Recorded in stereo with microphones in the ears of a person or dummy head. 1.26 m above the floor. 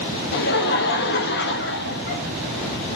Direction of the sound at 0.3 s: 50° left (ahead or behind).